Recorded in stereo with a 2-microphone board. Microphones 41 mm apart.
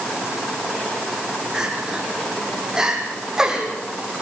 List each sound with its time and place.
1.5 s crying: 15° right (ahead or behind), 5.5 m